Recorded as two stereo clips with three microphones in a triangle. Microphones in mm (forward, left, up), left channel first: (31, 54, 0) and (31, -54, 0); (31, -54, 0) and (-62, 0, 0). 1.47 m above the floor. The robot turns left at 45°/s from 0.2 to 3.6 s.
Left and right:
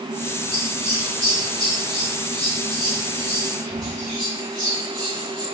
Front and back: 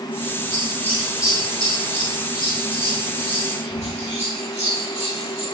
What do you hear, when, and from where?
0.5 s scissors: 100° left, 3 m; by 5.4 s 40° right, 3 m